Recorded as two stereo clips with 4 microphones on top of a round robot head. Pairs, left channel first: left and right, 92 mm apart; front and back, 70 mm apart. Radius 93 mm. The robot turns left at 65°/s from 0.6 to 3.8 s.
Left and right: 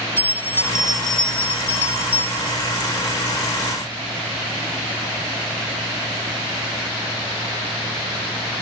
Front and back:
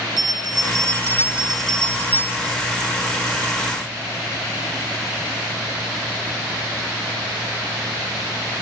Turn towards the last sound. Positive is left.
turn(degrees=-50)